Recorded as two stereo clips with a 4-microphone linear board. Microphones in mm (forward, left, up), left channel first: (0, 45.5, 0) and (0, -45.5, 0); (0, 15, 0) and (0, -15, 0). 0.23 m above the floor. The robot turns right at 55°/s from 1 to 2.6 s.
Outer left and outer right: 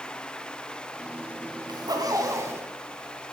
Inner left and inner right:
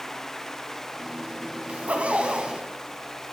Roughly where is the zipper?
Right.